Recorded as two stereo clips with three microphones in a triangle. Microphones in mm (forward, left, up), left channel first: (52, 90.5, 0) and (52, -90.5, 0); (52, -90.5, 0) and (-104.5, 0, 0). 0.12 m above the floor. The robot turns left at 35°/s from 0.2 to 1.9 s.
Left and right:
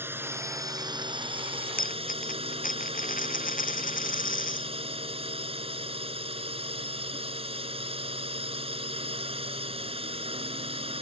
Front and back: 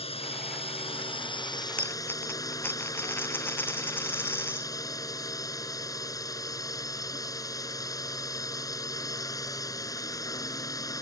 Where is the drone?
25° right; by 11.0 s 80° right.